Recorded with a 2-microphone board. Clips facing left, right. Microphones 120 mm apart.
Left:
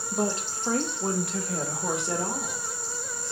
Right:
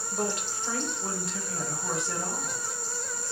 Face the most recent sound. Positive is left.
turn(degrees=80)